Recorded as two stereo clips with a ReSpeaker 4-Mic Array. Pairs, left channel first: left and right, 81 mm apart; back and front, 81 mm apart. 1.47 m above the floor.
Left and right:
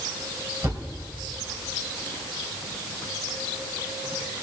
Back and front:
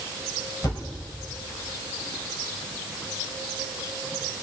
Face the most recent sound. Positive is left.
turn(degrees=-140)